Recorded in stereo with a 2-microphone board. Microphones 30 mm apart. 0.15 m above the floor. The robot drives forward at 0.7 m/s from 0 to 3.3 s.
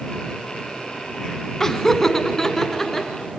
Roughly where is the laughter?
Centre.